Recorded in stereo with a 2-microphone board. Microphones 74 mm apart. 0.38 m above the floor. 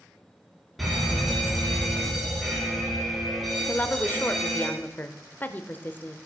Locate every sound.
0.8 s a fire alarm: centre (ahead or behind), 5.5 m
3.7 s a woman speaking: 25° left (ahead or behind), 0.8 m